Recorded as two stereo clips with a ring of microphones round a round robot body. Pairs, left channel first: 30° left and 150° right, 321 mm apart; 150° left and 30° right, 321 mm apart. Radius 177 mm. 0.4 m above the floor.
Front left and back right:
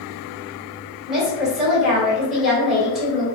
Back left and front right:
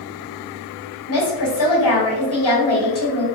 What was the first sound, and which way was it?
A woman speaking, 120° left.